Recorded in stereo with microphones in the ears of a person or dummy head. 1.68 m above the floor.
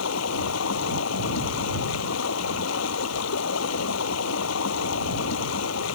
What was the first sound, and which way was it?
Running water, 85° left.